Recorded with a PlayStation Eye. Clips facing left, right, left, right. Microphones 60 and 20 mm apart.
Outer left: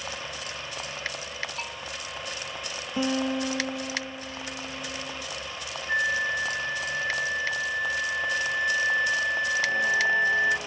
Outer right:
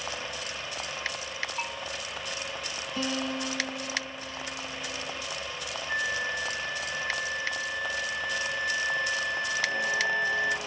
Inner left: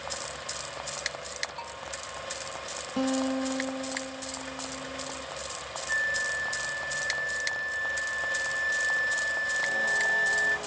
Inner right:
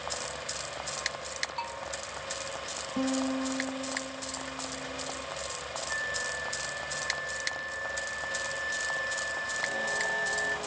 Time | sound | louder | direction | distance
1.6 | a bell | outer right 2 dB, inner right 3 dB | 10° right (ahead or behind) | ?
3.0 | a guitar | outer left 5 dB, inner left 2 dB | 20° left (ahead or behind) | ?
5.9 | a flute | outer left 5 dB, inner left 6 dB | 25° left (ahead or behind) | ?